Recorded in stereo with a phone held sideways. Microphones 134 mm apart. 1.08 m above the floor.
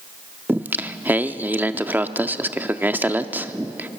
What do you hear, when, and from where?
0.5 s singing: 15° right (ahead or behind), 0.7 m